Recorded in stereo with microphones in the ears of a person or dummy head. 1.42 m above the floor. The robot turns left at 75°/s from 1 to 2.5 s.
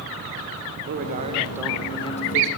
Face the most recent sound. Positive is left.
turn(degrees=110)